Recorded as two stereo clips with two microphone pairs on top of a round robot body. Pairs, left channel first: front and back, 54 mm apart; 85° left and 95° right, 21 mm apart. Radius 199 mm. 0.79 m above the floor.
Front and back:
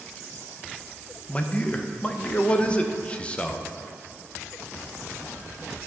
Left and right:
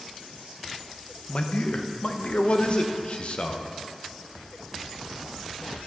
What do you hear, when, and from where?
1.3 s a man speaking: 60° left, 1.0 m